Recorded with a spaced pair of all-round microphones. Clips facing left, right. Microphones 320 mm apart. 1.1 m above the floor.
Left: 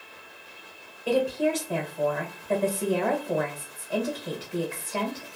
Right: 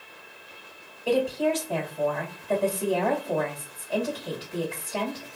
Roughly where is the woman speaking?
Centre.